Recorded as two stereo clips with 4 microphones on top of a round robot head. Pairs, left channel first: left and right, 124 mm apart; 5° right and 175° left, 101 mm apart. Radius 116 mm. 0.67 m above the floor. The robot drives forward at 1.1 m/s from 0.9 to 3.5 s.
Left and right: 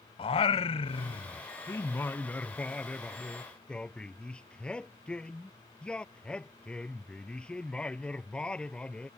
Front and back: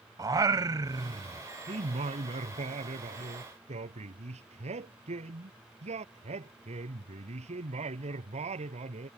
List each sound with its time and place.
0.2 s singing: 125° left; by 9.1 s 170° left